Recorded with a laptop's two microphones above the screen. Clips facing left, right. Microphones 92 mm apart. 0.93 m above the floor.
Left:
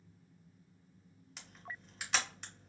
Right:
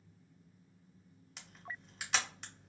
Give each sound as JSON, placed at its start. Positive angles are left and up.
{"t": 1.4, "sound": "a camera shutter", "side_deg": 0, "distance_m": 0.6}